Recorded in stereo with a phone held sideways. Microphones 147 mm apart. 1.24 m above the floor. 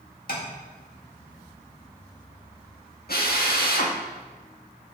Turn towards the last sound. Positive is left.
turn(degrees=80)